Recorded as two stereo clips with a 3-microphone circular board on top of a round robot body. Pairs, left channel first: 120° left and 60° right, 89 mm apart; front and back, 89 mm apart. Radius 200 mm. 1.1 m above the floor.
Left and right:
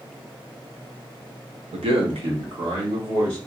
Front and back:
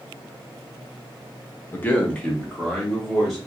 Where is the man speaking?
65° right, 0.6 m; by 3.4 s 85° right, 1.7 m.